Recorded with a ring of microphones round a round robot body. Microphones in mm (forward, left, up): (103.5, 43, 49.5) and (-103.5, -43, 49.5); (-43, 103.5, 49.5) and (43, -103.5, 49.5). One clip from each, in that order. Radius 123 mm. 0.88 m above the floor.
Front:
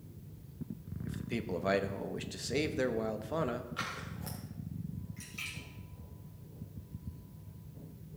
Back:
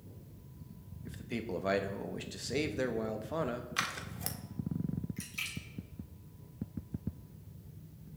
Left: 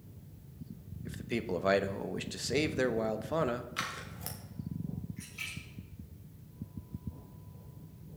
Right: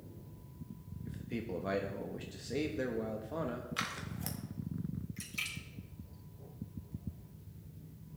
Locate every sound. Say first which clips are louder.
1.1 s a man speaking: front 1 dB, left 6 dB; 110° left, 0.9 m
3.8 s scissors: back 4 dB, left 1 dB; 150° right, 1.5 m
5.2 s a splash: back 1 dB, right 3 dB; 95° right, 3 m